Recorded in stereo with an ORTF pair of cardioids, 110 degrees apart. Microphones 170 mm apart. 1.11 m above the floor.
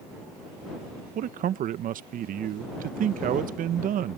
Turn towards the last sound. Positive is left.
turn(degrees=-55)